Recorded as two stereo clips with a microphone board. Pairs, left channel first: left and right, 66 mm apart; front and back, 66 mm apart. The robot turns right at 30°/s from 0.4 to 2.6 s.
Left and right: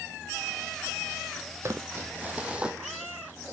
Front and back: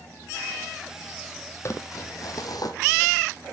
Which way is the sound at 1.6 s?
45° right.